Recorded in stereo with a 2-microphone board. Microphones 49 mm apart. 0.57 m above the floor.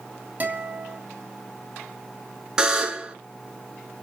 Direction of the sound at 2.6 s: 15° right (ahead or behind).